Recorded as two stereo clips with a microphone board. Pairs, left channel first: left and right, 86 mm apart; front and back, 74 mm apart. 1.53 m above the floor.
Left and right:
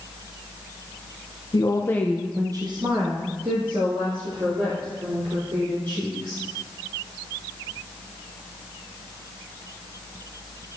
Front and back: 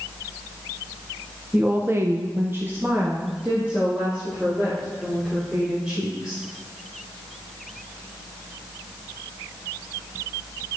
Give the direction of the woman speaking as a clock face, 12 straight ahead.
8 o'clock.